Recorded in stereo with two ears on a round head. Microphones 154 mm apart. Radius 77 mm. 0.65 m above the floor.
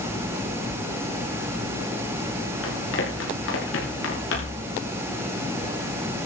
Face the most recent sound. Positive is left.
turn(degrees=80)